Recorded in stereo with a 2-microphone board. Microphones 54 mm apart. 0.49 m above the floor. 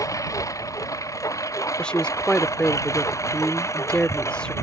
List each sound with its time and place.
0.0 s a lawn mower: 90° left; by 4.6 s 60° left (ahead or behind)
1.8 s a woman speaking: 20° left (ahead or behind)